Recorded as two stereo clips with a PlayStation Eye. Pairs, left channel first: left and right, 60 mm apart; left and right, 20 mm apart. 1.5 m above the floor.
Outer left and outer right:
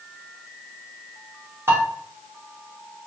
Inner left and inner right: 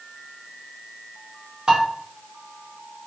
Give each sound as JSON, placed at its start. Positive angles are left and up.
{"t": 1.7, "sound": "dishes clattering", "side_deg": -45, "distance_m": 1.1}